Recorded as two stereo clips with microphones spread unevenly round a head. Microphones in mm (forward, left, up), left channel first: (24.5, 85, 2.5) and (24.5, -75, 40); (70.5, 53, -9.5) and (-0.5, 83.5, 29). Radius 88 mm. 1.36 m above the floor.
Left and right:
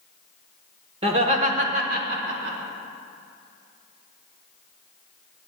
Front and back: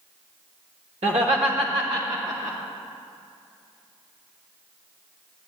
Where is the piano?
No piano in this recording.